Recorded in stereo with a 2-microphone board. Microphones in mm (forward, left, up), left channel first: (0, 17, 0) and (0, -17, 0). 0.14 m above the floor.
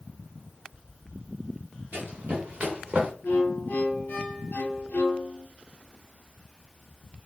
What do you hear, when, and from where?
1.9 s running footsteps: 60° right (ahead or behind), 1.6 m; by 3.1 s 25° right (ahead or behind), 1.2 m
3.2 s a violin: 70° left (ahead or behind), 0.6 m